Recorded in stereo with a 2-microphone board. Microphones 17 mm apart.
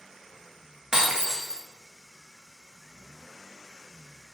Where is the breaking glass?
30° right (ahead or behind), 0.7 m.